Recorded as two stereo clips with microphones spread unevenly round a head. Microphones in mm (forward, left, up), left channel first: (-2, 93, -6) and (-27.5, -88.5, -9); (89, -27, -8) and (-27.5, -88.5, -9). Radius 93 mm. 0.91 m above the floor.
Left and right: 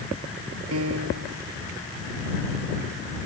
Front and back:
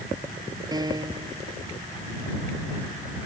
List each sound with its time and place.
0.7 s a piano: 95° right